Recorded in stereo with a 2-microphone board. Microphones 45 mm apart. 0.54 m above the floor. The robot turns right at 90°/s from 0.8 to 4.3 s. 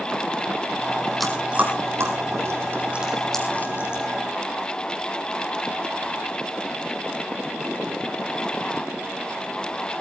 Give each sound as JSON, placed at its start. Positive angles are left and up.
{"t": 1.2, "sound": "chewing", "side_deg": 5, "distance_m": 4.0}